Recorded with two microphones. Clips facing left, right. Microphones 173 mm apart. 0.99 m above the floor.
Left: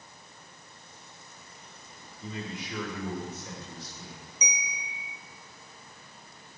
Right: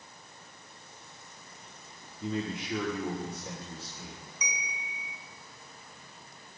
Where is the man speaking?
60° right (ahead or behind), 1.7 m; by 4.2 s 25° right (ahead or behind), 3.5 m.